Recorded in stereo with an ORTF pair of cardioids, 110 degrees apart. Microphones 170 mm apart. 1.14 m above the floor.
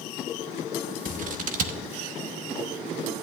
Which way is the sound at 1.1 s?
55° right.